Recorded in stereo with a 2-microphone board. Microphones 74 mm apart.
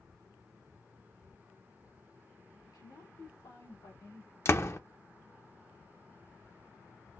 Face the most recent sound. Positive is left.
turn(degrees=40)  # may be behind; listen again after turning